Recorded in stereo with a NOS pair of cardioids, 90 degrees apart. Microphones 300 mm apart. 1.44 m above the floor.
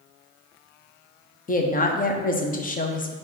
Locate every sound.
1.5 s a woman speaking: 30° left, 0.7 m